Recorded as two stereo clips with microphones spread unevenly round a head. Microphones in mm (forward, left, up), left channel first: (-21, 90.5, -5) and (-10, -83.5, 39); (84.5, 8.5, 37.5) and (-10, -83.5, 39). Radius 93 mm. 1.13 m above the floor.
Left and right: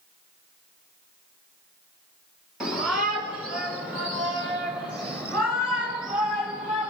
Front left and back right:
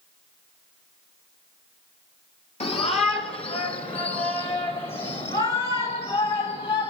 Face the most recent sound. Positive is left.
turn(degrees=0)